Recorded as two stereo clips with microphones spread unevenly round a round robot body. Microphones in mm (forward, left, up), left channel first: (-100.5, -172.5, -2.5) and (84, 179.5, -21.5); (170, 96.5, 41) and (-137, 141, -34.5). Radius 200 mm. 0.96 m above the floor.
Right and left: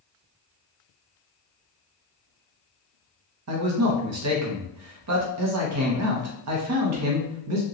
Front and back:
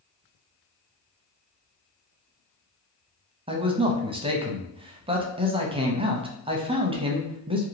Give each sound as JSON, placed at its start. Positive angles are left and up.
{"t": 3.5, "sound": "a man speaking", "azimuth_deg": 110, "distance_m": 0.8}